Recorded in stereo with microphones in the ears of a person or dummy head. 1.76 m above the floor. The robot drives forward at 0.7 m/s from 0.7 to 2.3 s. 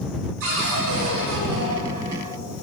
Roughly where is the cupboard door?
Right.